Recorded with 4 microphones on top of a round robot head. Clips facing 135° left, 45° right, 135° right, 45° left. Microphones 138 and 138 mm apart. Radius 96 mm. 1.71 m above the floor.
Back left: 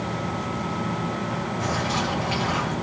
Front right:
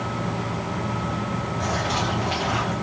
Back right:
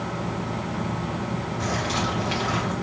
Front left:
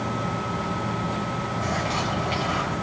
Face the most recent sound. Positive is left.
turn(degrees=-140)